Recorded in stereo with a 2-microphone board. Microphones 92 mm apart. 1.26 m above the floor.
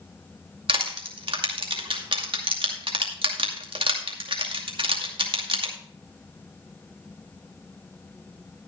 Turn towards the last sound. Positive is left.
turn(degrees=-65)  # may be behind; listen again after turning